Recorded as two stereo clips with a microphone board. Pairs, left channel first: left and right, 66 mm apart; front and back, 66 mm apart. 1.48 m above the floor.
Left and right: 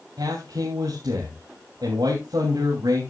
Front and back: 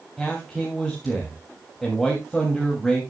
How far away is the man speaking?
About 3 m.